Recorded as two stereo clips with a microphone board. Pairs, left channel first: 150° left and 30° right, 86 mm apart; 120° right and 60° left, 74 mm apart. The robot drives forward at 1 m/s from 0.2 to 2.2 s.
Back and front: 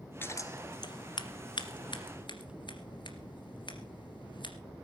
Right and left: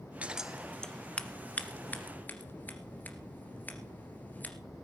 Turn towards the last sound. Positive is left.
turn(degrees=175)